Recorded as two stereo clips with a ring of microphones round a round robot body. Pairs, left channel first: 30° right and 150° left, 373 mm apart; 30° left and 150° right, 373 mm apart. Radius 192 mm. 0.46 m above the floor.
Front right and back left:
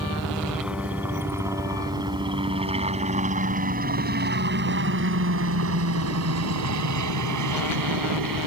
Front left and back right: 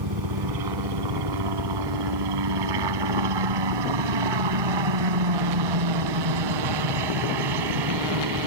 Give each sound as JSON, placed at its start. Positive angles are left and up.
{"t": 0.0, "sound": "a helicopter", "azimuth_deg": -120}